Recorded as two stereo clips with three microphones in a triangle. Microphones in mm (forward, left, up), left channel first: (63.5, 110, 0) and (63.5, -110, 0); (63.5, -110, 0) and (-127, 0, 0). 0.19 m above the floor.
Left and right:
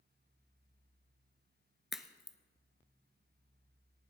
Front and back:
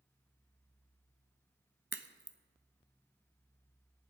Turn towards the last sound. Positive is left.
turn(degrees=180)